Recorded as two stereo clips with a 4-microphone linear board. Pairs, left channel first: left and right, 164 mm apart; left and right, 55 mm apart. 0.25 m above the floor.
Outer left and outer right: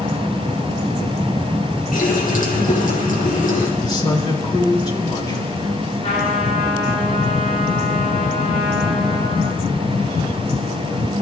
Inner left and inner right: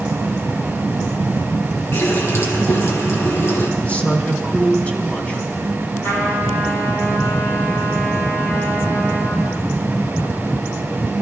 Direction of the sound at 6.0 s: 45° left (ahead or behind).